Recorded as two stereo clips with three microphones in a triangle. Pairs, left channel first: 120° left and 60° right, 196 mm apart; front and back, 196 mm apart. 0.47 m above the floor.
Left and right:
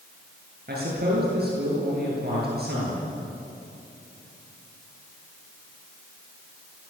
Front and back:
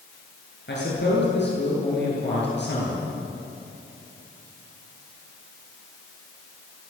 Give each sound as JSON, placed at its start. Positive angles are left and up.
{"t": 0.7, "sound": "a man speaking", "azimuth_deg": -25, "distance_m": 9.5}